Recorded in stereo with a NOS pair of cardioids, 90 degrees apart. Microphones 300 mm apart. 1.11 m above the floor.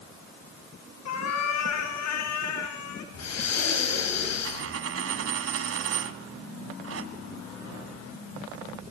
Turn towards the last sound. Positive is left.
turn(degrees=-50)